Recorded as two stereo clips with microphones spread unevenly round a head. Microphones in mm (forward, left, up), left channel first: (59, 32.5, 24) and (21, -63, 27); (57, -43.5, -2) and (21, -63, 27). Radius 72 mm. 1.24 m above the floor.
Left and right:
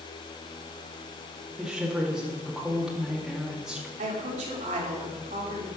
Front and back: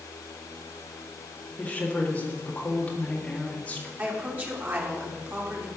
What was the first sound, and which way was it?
A woman speaking, 25° right.